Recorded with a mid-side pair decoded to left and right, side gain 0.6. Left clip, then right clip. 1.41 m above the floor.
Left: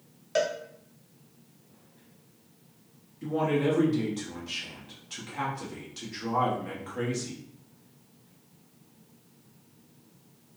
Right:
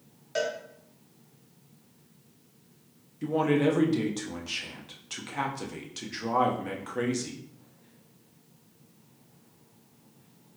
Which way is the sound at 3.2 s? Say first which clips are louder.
Right 2 dB; 30° right.